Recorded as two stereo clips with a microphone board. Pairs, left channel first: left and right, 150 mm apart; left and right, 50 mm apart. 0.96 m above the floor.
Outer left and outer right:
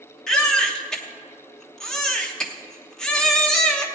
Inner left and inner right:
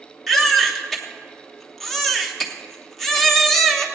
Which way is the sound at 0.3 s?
5° left (ahead or behind).